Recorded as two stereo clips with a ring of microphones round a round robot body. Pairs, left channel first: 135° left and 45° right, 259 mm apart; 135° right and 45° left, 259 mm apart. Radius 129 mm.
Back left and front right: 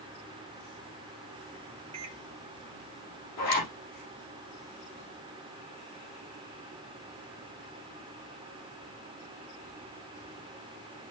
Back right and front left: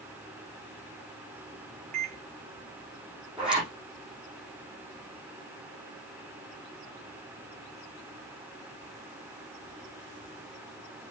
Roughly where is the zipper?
Behind left.